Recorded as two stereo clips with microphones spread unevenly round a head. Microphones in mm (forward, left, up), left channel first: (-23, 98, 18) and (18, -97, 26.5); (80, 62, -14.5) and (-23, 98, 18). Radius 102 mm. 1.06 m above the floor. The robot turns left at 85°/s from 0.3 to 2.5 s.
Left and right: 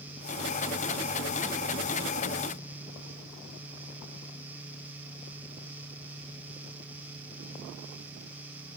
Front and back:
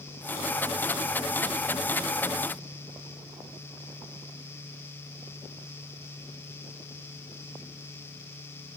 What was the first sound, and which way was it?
Only background noise.